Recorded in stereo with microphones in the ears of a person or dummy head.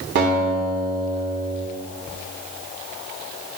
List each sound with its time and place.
0.1 s a guitar: 55° right (ahead or behind), 3.5 m